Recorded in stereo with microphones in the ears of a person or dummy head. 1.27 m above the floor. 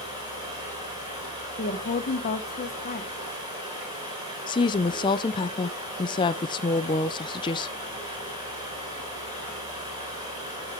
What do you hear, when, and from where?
0.0 s running water: 20° right (ahead or behind), 3.5 m
1.6 s a woman speaking: 40° left (ahead or behind), 1.0 m
4.5 s a woman speaking: 25° left (ahead or behind), 0.5 m